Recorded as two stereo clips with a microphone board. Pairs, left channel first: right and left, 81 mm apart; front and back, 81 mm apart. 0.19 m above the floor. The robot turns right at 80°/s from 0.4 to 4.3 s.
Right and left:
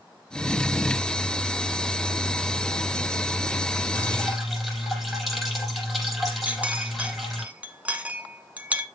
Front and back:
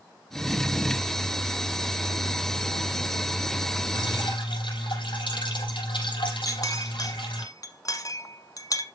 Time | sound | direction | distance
3.9 | dripping | 30° right | 4.5 m
6.5 | a clink | 20° left | 1.1 m